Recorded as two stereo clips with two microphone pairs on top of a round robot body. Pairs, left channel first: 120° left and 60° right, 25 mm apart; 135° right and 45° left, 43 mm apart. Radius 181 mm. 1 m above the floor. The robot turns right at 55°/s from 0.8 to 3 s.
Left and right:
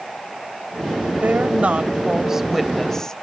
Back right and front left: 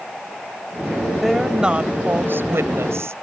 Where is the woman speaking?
50° right; by 3.1 s 50° left.